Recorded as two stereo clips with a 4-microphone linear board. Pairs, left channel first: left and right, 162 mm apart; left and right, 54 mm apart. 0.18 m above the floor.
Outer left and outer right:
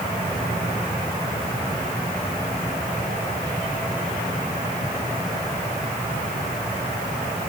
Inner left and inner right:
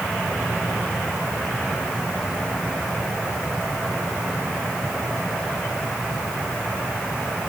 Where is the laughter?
I don't hear laughter.